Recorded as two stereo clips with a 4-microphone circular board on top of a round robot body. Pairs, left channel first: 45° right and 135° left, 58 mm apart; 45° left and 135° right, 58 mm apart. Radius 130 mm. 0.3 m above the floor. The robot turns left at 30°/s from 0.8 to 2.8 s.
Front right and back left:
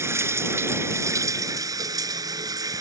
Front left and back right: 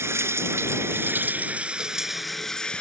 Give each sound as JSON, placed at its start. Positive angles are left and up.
{"t": 0.0, "sound": "running water", "azimuth_deg": 180}